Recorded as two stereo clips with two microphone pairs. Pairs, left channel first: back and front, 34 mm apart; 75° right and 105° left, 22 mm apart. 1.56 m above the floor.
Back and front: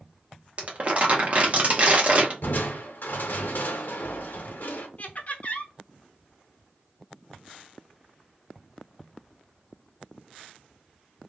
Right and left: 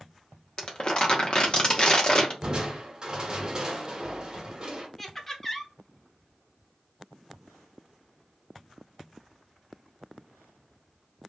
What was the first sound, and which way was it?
Crumpling, 40° right.